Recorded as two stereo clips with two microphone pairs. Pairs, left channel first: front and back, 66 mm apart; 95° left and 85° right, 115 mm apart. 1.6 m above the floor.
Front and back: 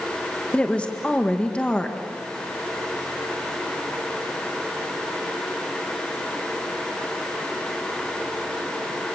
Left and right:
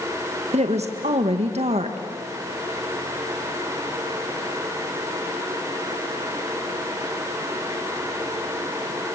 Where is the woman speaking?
75° right, 1.6 m.